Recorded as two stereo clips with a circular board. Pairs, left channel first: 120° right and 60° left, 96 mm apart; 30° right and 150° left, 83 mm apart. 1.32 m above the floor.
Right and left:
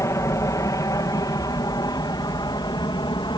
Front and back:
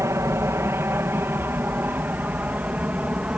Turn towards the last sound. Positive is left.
turn(degrees=-140)